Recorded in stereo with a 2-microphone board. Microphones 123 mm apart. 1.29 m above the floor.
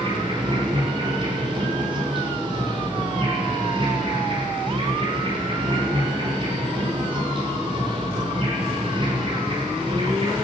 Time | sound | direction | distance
0.0 | an insect | 40° right (ahead or behind) | 6 m